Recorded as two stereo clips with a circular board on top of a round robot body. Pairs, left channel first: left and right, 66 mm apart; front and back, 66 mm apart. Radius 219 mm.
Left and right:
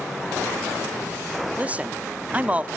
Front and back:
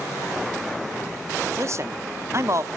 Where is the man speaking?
150° right, 1.2 m.